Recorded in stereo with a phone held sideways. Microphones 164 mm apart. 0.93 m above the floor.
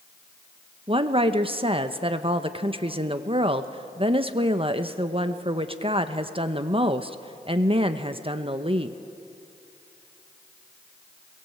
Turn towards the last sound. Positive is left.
turn(degrees=-35)  # may be behind; listen again after turning